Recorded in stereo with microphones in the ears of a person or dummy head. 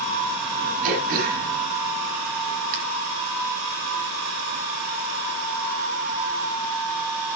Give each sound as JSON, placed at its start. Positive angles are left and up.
{"t": 0.8, "sound": "throat clearing", "side_deg": -50, "distance_m": 4.5}